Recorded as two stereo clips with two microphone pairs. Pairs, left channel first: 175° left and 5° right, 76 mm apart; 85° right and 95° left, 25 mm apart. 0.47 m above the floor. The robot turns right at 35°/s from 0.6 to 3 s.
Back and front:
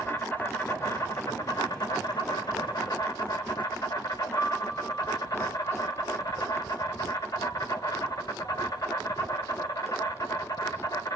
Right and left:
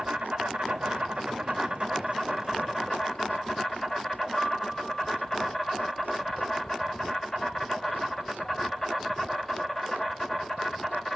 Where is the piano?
125° right, 1.5 m.